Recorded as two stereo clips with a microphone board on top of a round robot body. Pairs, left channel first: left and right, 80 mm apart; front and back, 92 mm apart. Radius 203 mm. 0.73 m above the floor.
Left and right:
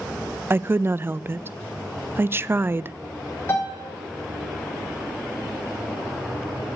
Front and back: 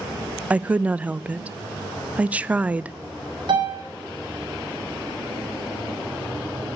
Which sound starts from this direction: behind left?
A piano, at 3.5 s.